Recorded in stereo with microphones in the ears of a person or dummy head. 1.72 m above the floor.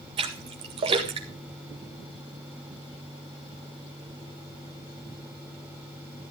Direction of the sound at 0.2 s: 25° right (ahead or behind).